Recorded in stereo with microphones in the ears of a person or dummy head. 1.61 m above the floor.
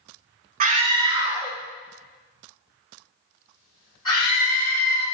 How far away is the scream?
About 0.6 m.